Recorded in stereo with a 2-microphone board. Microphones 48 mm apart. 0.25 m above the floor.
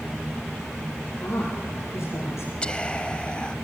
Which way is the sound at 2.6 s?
20° left (ahead or behind).